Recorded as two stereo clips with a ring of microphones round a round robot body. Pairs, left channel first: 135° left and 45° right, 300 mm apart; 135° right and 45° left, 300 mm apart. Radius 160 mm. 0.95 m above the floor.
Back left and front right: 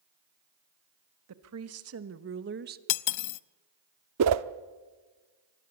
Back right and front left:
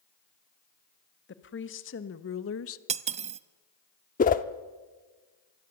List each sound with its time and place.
1.3 s a woman speaking: 80° right, 1.7 m; by 2.8 s 100° right, 0.9 m
2.9 s cutlery clinking: 115° left, 0.6 m
4.2 s a whoosh: 75° right, 0.6 m